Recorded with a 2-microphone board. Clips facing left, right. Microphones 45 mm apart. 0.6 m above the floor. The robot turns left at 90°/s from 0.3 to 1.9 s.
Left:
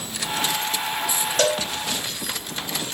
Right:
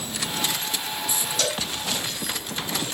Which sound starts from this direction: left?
A cowbell, at 1.4 s.